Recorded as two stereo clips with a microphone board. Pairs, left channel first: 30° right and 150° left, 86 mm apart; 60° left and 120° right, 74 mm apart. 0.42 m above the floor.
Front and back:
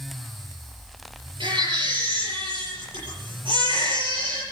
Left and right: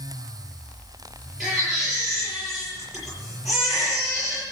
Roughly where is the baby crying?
Behind left.